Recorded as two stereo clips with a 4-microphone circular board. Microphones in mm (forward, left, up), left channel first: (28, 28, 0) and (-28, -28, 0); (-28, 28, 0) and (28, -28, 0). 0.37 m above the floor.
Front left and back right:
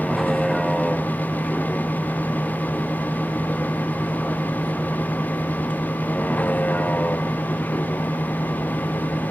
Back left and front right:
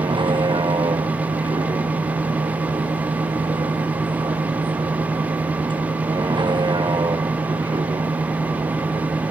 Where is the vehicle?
45° right; by 9.3 s 15° right.